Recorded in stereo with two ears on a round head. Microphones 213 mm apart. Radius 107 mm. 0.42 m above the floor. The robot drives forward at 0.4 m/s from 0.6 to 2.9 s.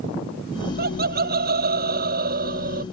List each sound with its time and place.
0.8 s laughter: 45° right (ahead or behind); by 2.8 s 40° right (ahead or behind)